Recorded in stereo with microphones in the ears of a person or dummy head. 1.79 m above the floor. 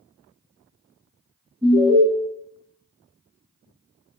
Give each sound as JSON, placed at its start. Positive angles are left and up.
{"t": 1.6, "sound": "an alarm", "side_deg": -10, "distance_m": 1.6}